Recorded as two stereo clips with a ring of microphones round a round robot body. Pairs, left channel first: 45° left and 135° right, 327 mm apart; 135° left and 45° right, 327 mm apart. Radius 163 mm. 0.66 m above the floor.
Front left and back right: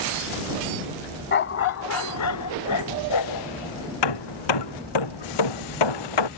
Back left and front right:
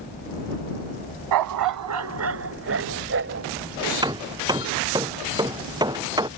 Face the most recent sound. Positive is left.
turn(degrees=35)